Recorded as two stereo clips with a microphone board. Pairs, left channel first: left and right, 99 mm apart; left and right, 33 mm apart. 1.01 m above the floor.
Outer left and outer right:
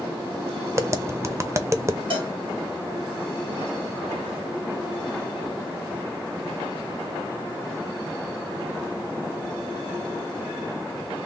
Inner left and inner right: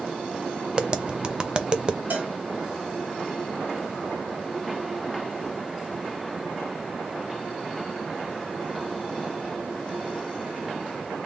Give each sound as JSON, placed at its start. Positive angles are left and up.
{"t": 0.8, "sound": "tapping", "side_deg": -30, "distance_m": 0.5}
{"t": 2.1, "sound": "a cowbell", "side_deg": -60, "distance_m": 2.0}